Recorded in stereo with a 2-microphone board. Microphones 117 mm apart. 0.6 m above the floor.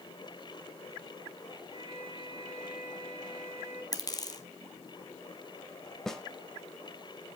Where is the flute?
55° left (ahead or behind), 3.5 m.